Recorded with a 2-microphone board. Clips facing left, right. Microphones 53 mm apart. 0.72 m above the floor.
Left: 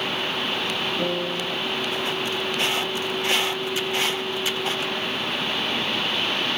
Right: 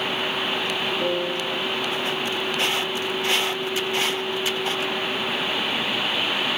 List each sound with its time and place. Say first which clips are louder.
1.0 s a piano: right 1 dB; 45° left (ahead or behind), 5 m